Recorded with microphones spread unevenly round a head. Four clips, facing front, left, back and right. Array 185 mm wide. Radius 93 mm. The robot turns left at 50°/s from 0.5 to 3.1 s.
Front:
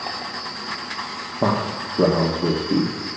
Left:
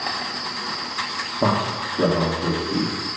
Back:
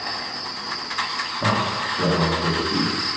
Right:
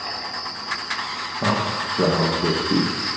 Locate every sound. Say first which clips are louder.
0.0 s an insect: left 2 dB, front 1 dB; 35° left, 1.4 m; by 3.2 s 95° right, 1.4 m
1.4 s a man speaking: left 2 dB, front 2 dB; 25° left, 1.4 m; by 2.9 s 50° right, 1.4 m